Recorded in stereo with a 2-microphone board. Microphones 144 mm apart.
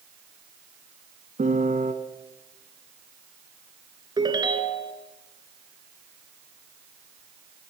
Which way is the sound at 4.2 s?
30° right (ahead or behind).